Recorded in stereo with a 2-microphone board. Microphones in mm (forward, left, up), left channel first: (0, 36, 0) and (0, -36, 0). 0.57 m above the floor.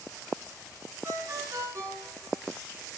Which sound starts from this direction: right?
A ringtone, at 1.0 s.